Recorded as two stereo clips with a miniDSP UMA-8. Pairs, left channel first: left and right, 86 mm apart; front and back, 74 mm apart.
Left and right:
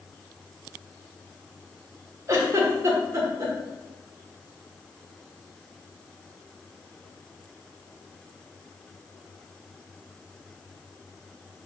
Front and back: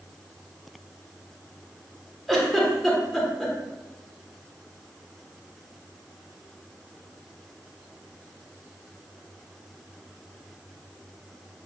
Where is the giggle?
85° right, 0.9 m.